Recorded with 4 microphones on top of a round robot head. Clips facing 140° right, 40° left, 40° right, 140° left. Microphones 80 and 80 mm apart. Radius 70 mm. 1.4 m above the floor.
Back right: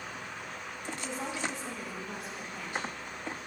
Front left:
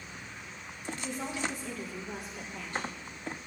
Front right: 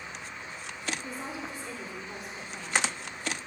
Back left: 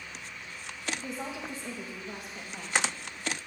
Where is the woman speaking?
160° left, 1.7 m; by 3.1 s 145° left, 3 m.